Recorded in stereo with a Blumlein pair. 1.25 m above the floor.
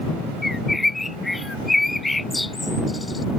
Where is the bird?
5° left.